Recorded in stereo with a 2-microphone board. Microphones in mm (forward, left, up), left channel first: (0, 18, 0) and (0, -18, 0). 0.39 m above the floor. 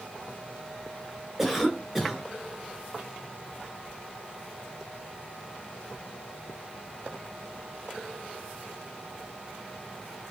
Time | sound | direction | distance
1.4 | a cough | 5° right (ahead or behind) | 0.8 m